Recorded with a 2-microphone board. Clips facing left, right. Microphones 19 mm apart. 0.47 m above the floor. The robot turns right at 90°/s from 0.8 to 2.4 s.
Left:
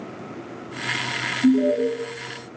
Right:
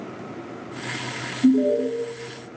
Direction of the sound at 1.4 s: 20° right (ahead or behind).